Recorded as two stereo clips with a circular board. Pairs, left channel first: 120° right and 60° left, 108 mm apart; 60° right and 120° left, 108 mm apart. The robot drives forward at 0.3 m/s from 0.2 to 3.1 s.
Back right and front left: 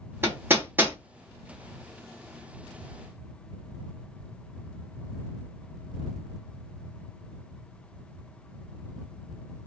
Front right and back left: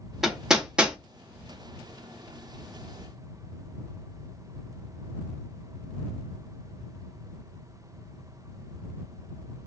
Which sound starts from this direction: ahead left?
Hammering, at 0.2 s.